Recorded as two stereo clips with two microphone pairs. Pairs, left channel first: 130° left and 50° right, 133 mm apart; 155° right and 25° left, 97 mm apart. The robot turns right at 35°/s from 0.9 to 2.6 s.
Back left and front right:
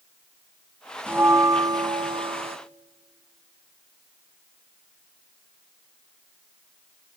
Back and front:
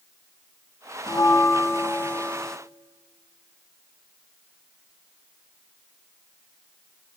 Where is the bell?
125° right, 0.5 m; by 2.6 s 70° right, 0.5 m.